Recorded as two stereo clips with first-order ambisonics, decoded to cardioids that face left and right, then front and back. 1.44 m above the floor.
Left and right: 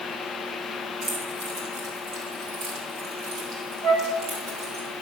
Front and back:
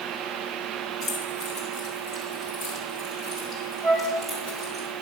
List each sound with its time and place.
1.0 s keys jangling: 50° right, 5 m; by 4.8 s 110° right, 5.5 m
3.8 s a flute: 100° right, 3 m